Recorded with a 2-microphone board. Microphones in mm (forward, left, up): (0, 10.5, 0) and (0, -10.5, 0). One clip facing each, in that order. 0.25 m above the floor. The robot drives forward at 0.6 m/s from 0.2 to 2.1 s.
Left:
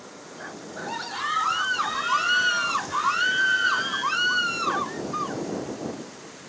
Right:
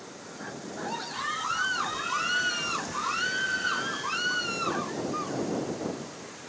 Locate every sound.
0.4 s a scream: 25° left (ahead or behind), 3 m; by 5.4 s 35° left (ahead or behind), 2 m